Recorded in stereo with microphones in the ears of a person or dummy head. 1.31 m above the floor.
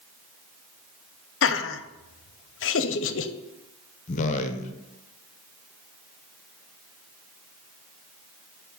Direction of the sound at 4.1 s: 40° left (ahead or behind).